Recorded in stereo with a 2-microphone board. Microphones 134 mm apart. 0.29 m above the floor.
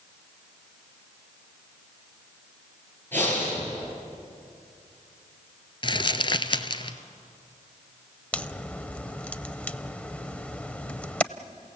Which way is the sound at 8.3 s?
10° left (ahead or behind).